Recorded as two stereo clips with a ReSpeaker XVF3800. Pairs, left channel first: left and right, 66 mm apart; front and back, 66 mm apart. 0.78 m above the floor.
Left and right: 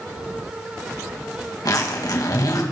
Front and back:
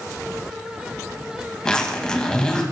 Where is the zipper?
75° left, 2 m.